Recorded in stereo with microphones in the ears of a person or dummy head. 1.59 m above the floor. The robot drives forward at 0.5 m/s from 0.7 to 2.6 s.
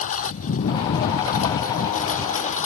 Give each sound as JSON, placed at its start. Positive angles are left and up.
{"t": 0.0, "sound": "a lawn mower", "side_deg": 45}